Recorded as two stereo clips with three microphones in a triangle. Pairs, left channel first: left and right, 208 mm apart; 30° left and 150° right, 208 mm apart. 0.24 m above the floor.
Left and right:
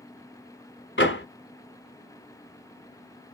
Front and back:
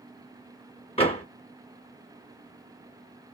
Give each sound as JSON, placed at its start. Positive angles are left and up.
{"t": 1.0, "sound": "a door slam", "azimuth_deg": 85, "distance_m": 1.1}